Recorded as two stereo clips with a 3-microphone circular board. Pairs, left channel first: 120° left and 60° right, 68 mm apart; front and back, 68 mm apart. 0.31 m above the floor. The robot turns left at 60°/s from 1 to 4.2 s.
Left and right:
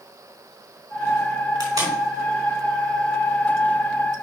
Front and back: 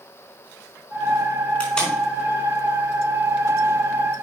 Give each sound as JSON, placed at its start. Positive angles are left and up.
{"t": 1.6, "sound": "tape being pulled", "azimuth_deg": -65, "distance_m": 4.0}